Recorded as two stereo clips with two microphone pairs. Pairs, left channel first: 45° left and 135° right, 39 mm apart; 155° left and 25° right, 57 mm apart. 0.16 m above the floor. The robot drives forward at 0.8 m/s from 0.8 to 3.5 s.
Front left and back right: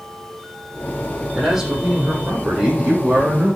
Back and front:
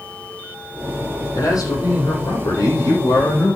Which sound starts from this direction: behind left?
A man speaking, at 1.3 s.